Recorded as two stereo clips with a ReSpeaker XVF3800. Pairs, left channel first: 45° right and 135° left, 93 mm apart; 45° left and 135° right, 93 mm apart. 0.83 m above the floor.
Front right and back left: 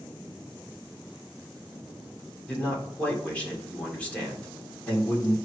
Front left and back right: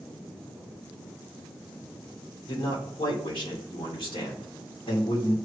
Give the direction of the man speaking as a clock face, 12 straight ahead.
11 o'clock.